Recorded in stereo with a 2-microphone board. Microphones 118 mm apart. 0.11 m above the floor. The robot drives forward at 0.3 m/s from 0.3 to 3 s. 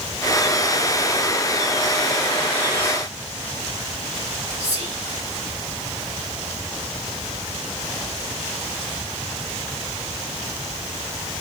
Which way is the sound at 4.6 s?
45° right (ahead or behind).